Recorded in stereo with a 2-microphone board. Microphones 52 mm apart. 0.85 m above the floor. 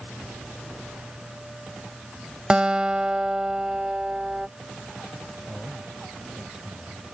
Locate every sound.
2.5 s a guitar: 20° right (ahead or behind)
5.5 s a man speaking: 10° right (ahead or behind)